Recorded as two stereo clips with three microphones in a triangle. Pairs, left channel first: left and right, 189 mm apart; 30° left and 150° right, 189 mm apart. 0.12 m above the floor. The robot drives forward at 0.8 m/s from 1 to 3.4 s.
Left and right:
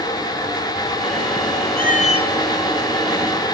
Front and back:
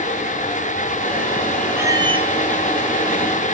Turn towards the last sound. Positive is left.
turn(degrees=165)